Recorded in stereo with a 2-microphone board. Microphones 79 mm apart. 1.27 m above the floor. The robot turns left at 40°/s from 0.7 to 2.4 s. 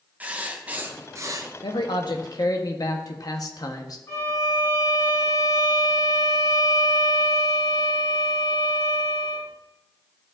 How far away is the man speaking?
About 1.0 m.